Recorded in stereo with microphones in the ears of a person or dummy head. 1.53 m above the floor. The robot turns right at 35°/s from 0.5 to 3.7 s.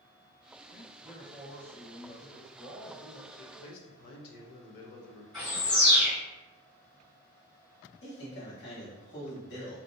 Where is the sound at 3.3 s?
45° left (ahead or behind), 0.7 m; by 5.2 s 55° left (ahead or behind), 0.7 m.